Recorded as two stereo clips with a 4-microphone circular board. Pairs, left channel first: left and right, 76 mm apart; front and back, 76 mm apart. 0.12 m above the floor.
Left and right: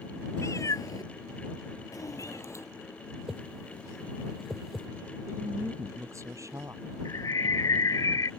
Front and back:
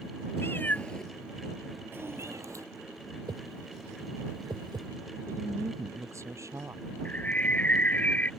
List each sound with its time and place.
0.4 s a cat meowing: 50° left; by 2.6 s 140° left
3.3 s a whoosh: straight behind
5.3 s a woman speaking: 135° right
7.0 s a bird: 65° left